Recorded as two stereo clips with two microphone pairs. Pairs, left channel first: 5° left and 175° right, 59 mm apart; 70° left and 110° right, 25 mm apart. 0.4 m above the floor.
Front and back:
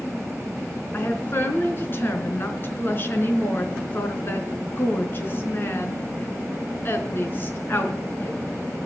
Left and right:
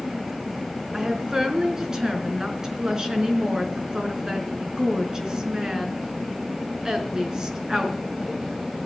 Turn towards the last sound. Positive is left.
turn(degrees=-45)